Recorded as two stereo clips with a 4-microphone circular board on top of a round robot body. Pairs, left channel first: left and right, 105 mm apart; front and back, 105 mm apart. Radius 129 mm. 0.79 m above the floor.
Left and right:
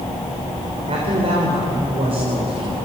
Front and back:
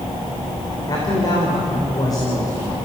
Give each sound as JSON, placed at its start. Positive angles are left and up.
{"t": 0.9, "sound": "a man speaking", "azimuth_deg": -55, "distance_m": 4.0}